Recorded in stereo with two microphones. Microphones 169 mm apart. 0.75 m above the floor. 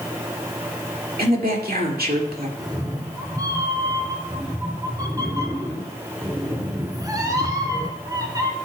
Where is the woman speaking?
60° right (ahead or behind), 2.0 m.